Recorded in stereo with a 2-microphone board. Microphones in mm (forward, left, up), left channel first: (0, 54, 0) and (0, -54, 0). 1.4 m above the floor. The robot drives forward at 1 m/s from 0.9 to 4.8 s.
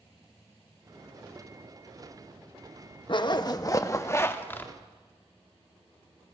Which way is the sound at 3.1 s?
45° left (ahead or behind).